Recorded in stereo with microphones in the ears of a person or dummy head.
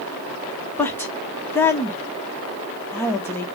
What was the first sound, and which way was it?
A woman speaking, 10° left (ahead or behind).